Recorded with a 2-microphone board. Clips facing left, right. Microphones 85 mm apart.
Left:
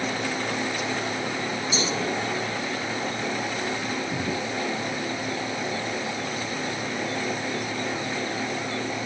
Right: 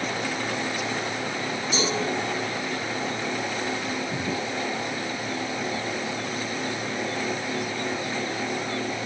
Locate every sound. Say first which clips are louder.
1.7 s a cowbell: right 3 dB; 50° right (ahead or behind), 5.5 m